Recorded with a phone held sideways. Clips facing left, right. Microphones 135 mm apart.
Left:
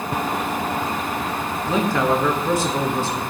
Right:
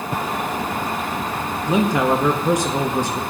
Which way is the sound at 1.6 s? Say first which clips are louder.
Right 2 dB; 15° right (ahead or behind).